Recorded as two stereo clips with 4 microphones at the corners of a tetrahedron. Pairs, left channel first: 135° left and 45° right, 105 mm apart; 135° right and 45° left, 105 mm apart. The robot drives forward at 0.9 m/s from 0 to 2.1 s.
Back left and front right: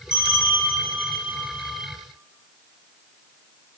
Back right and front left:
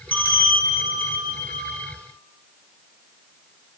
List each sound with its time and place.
0.1 s a bell: 155° left, 4.5 m; by 1.9 s 160° left, 5.5 m